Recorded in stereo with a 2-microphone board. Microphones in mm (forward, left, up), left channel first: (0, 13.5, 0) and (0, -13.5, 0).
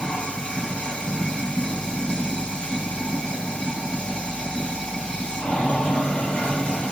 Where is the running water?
45° left (ahead or behind), 4.5 m.